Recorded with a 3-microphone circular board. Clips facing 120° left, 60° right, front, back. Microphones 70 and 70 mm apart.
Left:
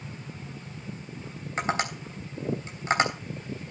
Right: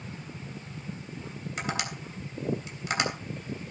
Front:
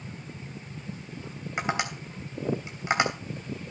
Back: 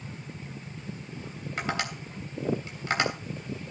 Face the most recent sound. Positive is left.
turn(degrees=65)